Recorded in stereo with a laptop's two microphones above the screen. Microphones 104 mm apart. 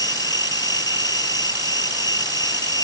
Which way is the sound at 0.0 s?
40° left (ahead or behind).